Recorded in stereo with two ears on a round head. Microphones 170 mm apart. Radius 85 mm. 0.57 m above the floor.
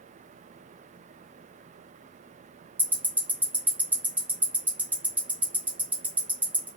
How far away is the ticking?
About 1.0 m.